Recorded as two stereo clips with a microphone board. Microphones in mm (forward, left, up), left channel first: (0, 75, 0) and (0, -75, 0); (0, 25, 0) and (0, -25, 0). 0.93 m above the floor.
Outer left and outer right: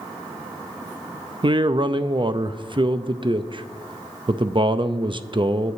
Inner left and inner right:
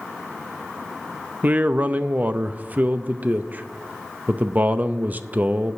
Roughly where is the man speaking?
Right.